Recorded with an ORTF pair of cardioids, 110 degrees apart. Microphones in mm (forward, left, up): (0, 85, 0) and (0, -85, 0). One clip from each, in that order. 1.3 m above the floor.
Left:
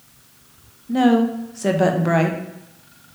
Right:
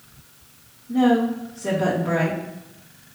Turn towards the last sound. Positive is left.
turn(degrees=55)